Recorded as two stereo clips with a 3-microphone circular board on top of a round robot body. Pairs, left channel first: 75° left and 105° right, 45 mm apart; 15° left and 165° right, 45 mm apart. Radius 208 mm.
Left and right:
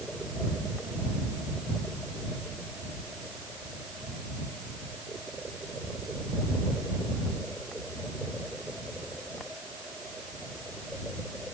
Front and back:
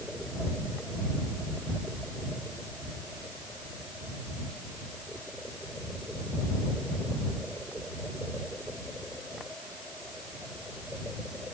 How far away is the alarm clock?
I don't hear an alarm clock.